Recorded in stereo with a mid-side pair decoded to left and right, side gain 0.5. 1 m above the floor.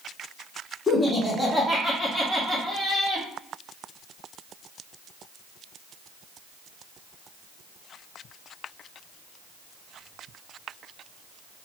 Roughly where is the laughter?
Ahead.